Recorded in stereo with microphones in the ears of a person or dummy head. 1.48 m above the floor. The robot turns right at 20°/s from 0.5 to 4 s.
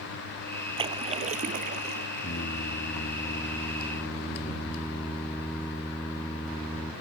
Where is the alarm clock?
No alarm clock in this recording.